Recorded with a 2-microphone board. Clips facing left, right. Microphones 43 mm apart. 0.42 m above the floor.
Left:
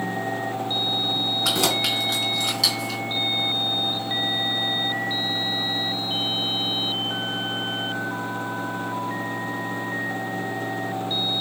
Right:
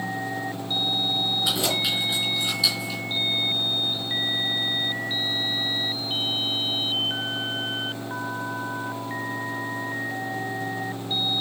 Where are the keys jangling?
80° left, 3.5 m; by 3.0 s 70° left (ahead or behind), 2.5 m.